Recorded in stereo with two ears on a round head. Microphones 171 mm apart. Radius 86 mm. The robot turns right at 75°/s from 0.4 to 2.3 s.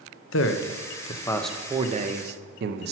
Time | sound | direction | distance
0.3 | a man speaking | 100° left | 0.7 m